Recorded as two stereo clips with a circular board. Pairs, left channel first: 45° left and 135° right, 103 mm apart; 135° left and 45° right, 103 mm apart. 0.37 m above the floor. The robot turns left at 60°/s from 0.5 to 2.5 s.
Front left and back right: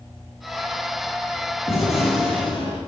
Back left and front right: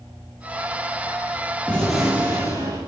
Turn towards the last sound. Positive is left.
turn(degrees=10)